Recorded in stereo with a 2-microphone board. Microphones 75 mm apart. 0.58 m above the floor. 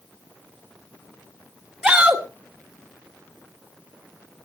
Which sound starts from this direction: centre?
A shout, at 1.8 s.